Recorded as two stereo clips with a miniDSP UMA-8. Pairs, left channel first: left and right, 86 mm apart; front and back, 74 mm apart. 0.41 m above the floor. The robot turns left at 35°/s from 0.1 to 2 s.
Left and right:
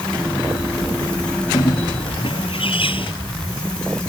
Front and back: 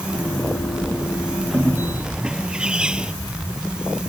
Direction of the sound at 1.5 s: 115° left.